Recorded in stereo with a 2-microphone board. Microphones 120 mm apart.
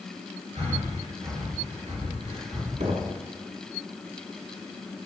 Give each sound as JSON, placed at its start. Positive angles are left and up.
{"t": 0.6, "sound": "breathing", "side_deg": -65, "distance_m": 8.5}
{"t": 2.8, "sound": "knocking", "side_deg": -70, "distance_m": 3.0}